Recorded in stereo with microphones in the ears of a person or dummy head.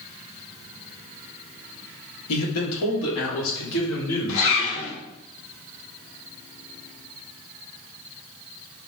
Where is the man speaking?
80° left, 1.1 m; by 5.0 s 60° left (ahead or behind), 2.5 m.